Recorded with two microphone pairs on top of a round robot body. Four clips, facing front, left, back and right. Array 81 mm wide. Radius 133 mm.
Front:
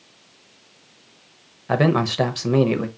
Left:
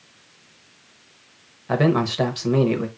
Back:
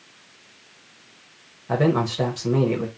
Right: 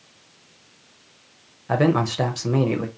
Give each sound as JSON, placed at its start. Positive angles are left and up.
{"t": 1.7, "sound": "a man speaking", "azimuth_deg": -5, "distance_m": 0.9}